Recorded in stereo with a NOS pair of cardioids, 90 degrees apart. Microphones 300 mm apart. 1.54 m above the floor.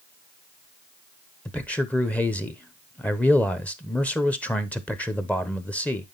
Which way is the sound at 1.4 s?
5° left.